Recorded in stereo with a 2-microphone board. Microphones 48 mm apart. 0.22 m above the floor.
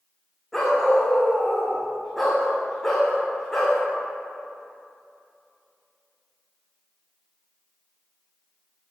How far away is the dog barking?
About 4 m.